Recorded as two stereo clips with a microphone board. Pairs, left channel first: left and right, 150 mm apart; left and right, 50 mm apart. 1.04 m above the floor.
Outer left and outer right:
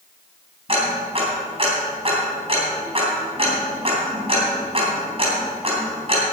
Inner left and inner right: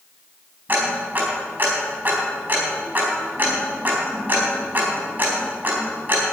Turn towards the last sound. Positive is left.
turn(degrees=-40)  # may be behind; listen again after turning